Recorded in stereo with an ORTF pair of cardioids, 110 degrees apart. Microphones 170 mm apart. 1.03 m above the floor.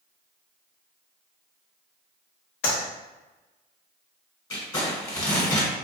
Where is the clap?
65° left, 1.1 m.